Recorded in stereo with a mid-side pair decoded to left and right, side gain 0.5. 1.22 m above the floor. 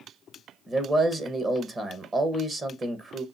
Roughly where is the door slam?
I don't hear a door slam.